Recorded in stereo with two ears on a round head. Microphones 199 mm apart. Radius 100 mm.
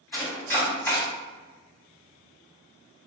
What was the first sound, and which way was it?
Chopping, 10° left (ahead or behind).